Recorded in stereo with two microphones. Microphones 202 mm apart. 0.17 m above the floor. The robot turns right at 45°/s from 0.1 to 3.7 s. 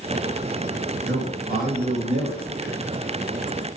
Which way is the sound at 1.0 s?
85° right.